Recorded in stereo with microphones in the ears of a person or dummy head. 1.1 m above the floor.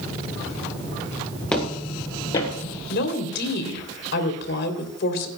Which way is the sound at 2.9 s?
65° left (ahead or behind).